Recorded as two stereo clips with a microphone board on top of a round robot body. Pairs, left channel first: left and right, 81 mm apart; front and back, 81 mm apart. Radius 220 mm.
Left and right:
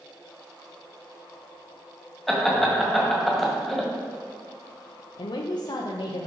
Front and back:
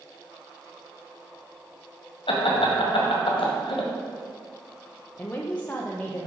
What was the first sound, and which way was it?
Laughter, straight ahead.